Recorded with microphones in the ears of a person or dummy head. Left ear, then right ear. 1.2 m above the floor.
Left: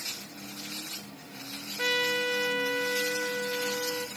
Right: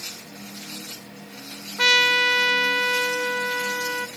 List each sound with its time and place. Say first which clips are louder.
1.8 s a trumpet: right 10 dB; 35° right (ahead or behind), 0.8 m